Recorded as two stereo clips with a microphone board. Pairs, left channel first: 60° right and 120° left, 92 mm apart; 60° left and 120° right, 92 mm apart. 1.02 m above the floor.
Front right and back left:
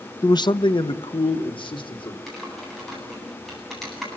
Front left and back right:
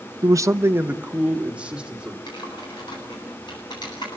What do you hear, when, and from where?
0.2 s a man speaking: 95° right, 0.7 m; by 2.2 s 40° right, 3.5 m
2.3 s typing on a keyboard: 30° left, 9.5 m